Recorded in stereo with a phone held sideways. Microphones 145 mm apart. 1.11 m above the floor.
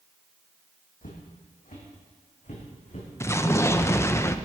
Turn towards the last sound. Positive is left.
turn(degrees=20)  # may be behind; listen again after turning